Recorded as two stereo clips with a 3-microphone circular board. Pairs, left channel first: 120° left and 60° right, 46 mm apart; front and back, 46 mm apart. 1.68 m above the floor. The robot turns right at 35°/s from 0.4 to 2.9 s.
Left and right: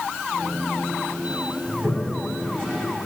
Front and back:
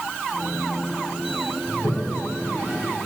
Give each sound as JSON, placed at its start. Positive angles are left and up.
{"t": 1.7, "sound": "a toilet flushing", "azimuth_deg": 0, "distance_m": 5.0}